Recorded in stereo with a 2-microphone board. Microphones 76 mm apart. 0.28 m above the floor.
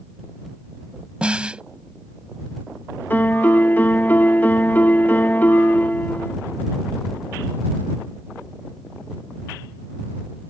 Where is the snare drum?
15° right (ahead or behind).